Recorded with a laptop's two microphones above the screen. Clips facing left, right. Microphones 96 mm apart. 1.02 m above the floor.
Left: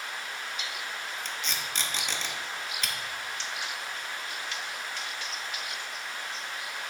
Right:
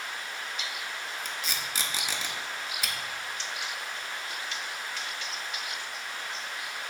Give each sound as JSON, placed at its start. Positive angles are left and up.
{"t": 1.2, "sound": "tape being pulled", "side_deg": -5, "distance_m": 0.8}